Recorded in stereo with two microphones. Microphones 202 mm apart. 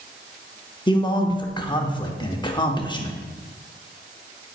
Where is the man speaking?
20° left (ahead or behind), 0.7 m.